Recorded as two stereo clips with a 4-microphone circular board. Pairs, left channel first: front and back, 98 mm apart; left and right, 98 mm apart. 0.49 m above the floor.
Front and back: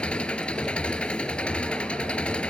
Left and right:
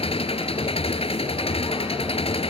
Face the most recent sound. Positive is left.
turn(degrees=80)